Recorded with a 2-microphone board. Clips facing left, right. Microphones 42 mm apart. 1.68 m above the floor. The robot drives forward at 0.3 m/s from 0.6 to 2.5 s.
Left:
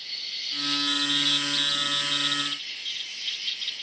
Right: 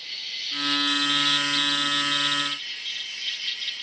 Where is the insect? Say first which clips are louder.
Right 2 dB; 55° right (ahead or behind), 1.8 m.